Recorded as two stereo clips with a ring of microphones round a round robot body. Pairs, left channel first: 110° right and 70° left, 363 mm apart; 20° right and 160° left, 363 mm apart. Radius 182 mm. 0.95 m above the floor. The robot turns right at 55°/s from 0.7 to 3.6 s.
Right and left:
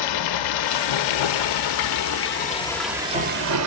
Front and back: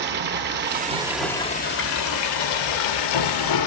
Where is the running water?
140° right, 0.8 m; by 3.7 s 20° left, 0.8 m.